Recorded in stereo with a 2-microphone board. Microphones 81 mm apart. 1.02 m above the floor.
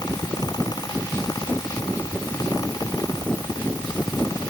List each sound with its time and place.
Only background noise.